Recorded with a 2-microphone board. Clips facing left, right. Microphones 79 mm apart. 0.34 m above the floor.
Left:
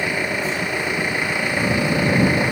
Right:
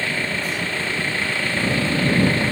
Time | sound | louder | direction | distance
0.0 | an engine running | left 2 dB | 15° left (ahead or behind) | ?